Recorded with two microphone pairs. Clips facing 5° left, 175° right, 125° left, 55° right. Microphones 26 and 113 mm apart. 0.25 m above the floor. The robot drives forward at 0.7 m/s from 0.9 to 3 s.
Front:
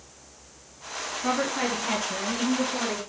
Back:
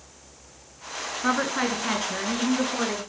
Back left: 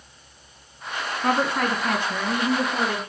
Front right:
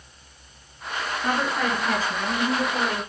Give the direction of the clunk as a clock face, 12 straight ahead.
No clunk in this recording.